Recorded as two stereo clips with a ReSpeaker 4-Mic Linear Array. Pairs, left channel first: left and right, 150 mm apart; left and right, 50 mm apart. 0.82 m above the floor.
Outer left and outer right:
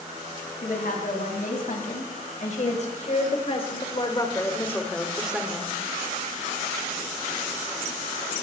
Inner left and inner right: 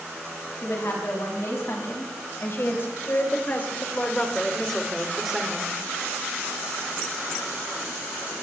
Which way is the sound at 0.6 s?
70° left (ahead or behind).